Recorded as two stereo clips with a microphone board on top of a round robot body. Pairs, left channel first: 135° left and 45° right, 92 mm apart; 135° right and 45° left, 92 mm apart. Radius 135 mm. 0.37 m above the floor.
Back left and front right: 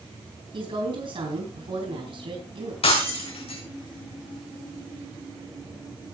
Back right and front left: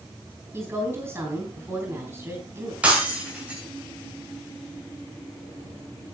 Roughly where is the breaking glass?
Behind left.